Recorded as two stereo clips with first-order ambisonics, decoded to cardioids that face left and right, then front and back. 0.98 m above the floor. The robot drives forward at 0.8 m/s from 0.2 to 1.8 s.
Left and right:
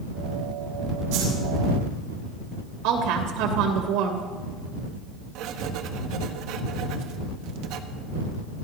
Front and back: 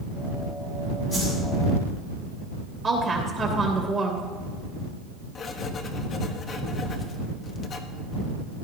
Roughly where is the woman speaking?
Right.